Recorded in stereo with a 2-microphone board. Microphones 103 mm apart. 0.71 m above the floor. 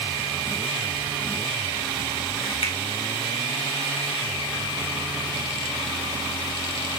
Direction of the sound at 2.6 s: 65° left (ahead or behind).